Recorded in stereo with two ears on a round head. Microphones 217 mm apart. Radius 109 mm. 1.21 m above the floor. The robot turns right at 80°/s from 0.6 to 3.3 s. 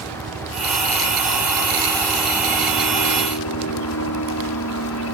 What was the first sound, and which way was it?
A helicopter, 45° right (ahead or behind).